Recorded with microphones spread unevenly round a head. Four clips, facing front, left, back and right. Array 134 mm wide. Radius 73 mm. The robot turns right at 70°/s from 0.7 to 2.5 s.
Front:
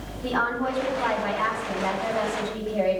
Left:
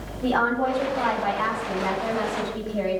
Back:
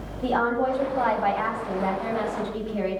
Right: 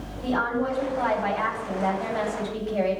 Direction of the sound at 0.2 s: 155° left.